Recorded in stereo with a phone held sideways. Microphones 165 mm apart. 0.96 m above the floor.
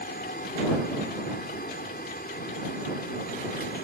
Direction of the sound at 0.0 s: 70° left (ahead or behind).